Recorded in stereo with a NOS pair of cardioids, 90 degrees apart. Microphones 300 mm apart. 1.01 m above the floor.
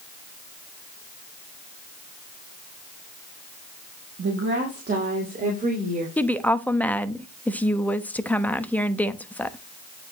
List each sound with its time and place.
4.2 s a woman speaking: 45° right, 2 m; by 6.1 s 25° right, 4 m
6.2 s a woman speaking: 5° left, 1.1 m